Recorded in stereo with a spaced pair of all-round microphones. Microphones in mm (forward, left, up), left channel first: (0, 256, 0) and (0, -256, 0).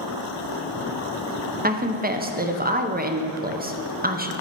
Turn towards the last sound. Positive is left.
turn(degrees=-20)  # may be behind; listen again after turning